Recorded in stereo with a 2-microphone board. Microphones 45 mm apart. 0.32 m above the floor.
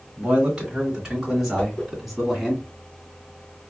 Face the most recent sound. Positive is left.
turn(degrees=30)  # may be behind; listen again after turning